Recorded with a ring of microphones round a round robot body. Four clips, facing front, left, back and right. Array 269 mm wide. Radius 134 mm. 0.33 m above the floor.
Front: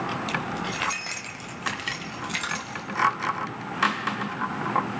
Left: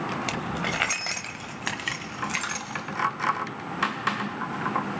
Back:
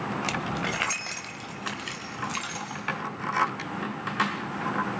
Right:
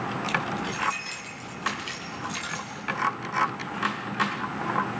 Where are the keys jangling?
135° left, 1.3 m; by 2.8 s 50° left, 3 m.